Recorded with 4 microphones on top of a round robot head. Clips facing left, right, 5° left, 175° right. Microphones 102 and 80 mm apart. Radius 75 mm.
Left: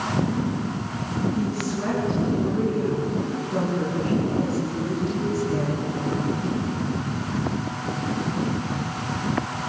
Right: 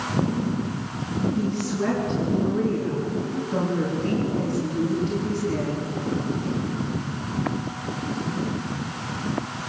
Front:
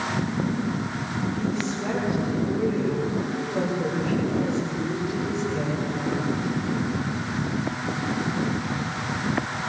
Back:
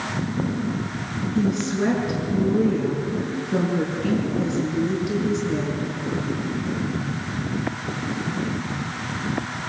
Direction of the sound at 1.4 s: 170° left.